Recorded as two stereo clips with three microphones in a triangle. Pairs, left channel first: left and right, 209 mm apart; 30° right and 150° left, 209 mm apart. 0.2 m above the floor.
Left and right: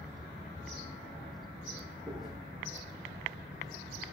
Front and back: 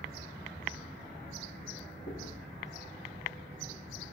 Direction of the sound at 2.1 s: 5° right.